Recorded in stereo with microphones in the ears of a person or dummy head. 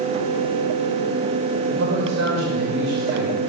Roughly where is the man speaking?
Right.